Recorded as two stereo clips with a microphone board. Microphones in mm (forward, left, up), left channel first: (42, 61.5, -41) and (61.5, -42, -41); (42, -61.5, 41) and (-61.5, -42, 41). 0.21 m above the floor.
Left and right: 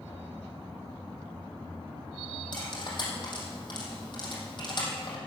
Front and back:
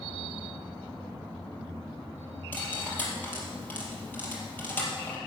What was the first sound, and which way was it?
Cutlery clinking, 60° left.